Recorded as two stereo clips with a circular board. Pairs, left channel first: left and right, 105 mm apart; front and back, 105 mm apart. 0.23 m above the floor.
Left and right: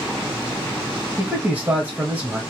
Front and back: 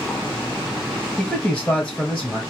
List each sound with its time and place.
1.2 s a man speaking: 55° right, 1.2 m